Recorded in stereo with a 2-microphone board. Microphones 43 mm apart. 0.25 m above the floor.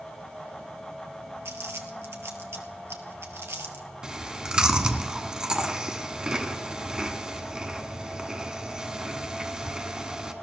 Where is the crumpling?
80° right, 1.4 m.